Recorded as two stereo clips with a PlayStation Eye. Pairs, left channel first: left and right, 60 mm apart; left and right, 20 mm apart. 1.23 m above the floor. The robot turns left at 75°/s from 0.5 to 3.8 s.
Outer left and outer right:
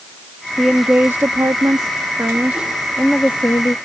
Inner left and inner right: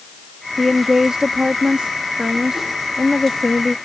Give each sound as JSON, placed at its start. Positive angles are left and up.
{"t": 0.6, "sound": "a woman speaking", "azimuth_deg": 0}